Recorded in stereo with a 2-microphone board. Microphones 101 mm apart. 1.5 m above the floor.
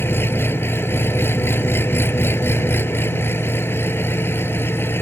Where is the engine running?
25° left (ahead or behind).